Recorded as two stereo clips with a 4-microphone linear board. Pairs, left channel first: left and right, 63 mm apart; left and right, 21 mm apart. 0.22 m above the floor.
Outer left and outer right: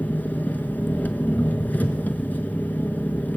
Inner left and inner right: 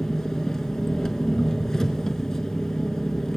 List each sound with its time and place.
0.0 s an engine running: 25° left (ahead or behind), 1.0 m